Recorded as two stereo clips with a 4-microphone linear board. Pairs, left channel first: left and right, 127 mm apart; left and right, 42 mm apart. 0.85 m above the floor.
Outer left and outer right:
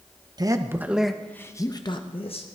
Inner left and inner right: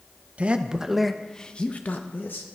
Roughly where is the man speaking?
Right.